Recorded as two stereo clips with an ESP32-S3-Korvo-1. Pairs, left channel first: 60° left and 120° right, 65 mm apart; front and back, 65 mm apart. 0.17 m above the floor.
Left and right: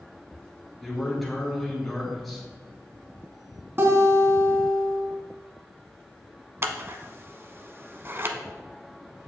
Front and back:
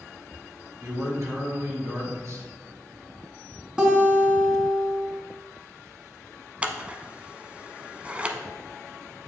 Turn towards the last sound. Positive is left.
turn(degrees=-125)